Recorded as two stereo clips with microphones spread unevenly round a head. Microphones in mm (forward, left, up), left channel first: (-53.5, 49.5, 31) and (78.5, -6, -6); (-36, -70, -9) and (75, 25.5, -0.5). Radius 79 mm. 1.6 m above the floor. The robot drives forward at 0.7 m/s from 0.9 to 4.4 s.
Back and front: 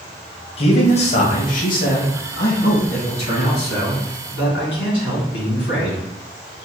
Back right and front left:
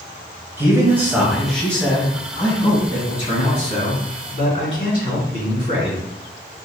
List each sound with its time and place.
0.6 s a man speaking: 115° left, 1.0 m; by 6.0 s 165° left, 3 m